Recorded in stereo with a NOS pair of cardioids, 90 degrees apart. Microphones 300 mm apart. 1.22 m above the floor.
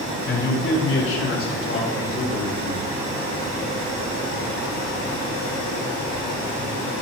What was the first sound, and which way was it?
A man speaking, 45° left.